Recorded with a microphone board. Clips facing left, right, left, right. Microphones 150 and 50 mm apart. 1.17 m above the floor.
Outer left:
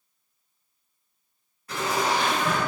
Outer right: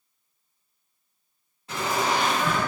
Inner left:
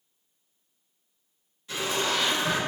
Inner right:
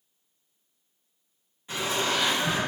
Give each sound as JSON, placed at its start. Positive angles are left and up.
{"t": 1.7, "sound": "laughter", "side_deg": -25, "distance_m": 1.4}